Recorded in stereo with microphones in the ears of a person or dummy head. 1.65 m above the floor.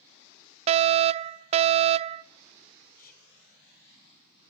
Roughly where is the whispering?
Left.